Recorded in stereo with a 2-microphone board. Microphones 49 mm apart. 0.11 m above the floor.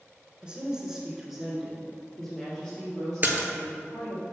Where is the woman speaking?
20° right (ahead or behind), 1.1 m; by 4.2 s 15° left (ahead or behind), 3 m.